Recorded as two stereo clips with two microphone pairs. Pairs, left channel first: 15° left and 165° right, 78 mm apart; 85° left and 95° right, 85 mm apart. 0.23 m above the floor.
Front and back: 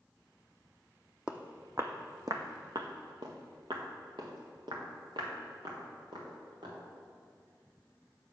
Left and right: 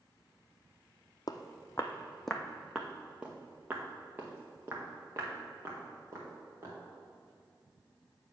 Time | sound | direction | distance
1.3 | footsteps | 120° left | 0.6 m